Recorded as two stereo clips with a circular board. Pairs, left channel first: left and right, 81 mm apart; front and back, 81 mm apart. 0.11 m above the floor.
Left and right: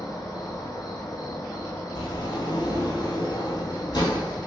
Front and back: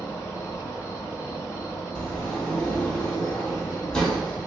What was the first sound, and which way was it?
An insect, 55° left.